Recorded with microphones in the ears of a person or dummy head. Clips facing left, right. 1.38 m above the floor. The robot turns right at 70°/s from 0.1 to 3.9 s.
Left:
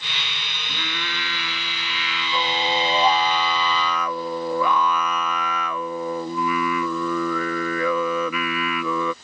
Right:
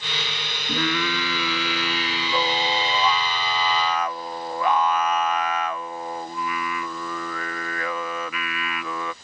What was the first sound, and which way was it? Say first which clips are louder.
Singing: right 9 dB; 135° right.